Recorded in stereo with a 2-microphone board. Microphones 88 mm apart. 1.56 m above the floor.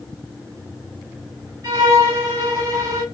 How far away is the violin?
About 1.6 m.